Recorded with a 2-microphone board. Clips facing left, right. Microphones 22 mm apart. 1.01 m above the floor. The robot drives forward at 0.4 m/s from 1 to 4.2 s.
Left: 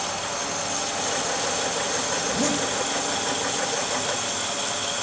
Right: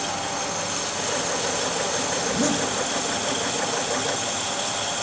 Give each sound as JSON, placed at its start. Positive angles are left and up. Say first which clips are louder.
{"t": 2.2, "sound": "a zipper", "louder": "right 2 dB", "side_deg": 5, "distance_m": 1.1}